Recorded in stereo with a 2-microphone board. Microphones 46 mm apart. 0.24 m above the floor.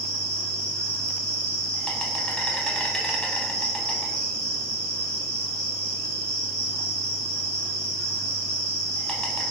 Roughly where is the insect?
Centre.